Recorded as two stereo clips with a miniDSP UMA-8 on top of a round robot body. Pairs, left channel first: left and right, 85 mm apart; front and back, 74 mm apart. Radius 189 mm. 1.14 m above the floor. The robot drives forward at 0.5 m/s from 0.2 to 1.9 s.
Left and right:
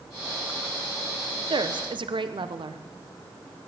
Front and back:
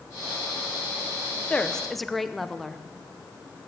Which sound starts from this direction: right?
A woman speaking, at 1.5 s.